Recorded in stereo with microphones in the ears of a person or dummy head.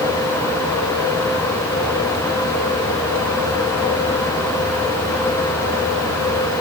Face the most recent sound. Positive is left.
No sound to turn to.